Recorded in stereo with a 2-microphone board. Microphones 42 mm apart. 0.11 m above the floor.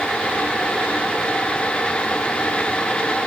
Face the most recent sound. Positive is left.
No sound to turn to.